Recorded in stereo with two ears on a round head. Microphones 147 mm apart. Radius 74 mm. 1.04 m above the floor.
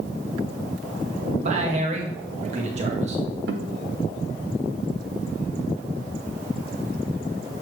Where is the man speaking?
45° right (ahead or behind), 1.7 m.